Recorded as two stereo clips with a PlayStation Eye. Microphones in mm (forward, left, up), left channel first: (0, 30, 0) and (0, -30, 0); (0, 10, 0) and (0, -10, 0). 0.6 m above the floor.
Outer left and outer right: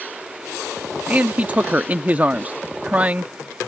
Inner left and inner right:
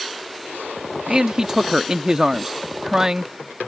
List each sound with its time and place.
1.1 s a man speaking: 25° right (ahead or behind)